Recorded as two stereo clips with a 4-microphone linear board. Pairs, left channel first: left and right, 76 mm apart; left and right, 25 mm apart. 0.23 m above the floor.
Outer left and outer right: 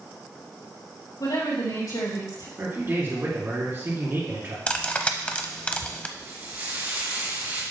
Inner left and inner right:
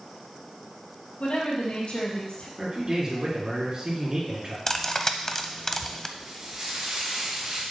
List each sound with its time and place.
1.2 s a woman speaking: 70° left (ahead or behind), 4 m; by 2.5 s 75° left (ahead or behind), 4 m
2.6 s a man speaking: 30° right (ahead or behind), 3.5 m
4.7 s cutlery clinking: 20° left (ahead or behind), 0.6 m
6.2 s frying: 30° right (ahead or behind), 4.5 m